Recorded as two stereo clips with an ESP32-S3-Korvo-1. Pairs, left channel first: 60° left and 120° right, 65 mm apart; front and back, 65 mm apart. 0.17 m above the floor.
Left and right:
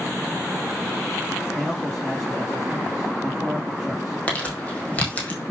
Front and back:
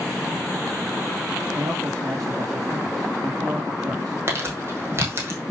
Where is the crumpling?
130° left, 4 m.